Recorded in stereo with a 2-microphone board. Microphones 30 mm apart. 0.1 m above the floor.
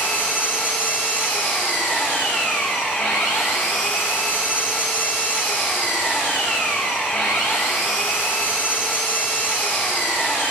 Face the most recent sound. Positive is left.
turn(degrees=80)